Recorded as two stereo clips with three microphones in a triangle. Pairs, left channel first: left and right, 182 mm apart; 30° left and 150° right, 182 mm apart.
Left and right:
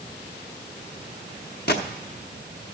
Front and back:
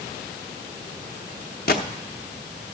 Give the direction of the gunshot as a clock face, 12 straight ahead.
10 o'clock.